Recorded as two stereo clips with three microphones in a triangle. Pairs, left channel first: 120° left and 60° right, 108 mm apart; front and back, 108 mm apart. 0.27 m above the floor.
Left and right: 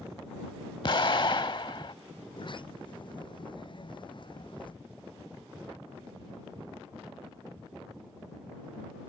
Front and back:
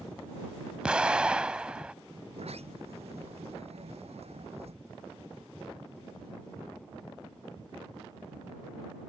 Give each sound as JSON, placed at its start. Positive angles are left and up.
{"t": 0.8, "sound": "an explosion", "azimuth_deg": 100}
{"t": 2.3, "sound": "a sliding door", "azimuth_deg": 160}